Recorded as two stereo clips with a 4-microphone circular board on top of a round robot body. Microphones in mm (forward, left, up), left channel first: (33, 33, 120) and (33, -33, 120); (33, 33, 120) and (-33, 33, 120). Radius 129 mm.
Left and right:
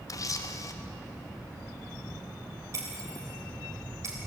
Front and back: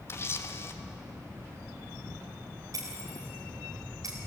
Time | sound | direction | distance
0.1 | a camera shutter | 50° left | 1.2 m
2.7 | breaking glass | 140° right | 3.5 m